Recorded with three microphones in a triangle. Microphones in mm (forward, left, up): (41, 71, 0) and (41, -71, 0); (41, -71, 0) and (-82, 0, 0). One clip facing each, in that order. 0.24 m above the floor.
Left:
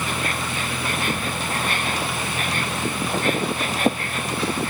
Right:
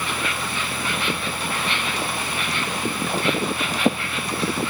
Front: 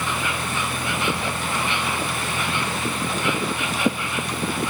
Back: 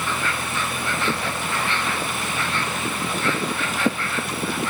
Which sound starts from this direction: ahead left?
An insect, at 0.0 s.